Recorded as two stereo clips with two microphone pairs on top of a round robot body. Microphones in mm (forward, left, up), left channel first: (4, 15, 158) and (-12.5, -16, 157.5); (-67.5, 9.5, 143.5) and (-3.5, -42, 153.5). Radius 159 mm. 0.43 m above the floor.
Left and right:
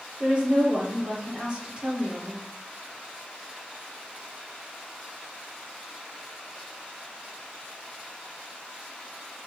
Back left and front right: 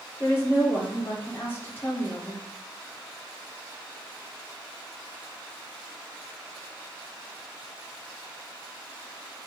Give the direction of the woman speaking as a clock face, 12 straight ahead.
6 o'clock.